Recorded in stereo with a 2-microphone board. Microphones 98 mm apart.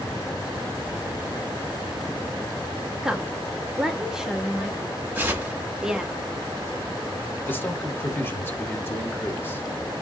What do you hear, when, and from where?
3.0 s a woman speaking: 5° right (ahead or behind), 0.8 m
5.2 s tearing paper: 20° right (ahead or behind), 1.2 m
7.5 s a man speaking: 20° left (ahead or behind), 0.9 m